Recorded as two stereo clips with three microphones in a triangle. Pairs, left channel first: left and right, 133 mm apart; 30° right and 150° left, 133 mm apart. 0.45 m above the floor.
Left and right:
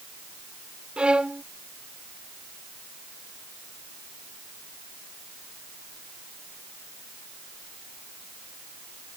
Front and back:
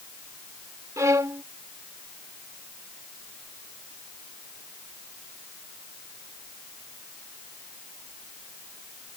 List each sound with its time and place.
1.0 s a violin: 165° right